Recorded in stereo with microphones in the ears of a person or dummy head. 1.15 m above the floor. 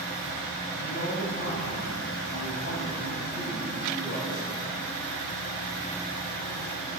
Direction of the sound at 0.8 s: 65° left (ahead or behind).